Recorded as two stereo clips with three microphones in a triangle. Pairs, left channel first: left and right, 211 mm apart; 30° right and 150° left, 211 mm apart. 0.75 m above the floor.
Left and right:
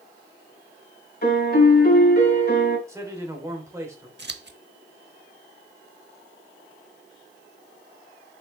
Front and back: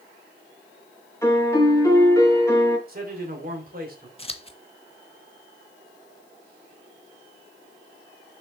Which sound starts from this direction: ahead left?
A piano, at 1.2 s.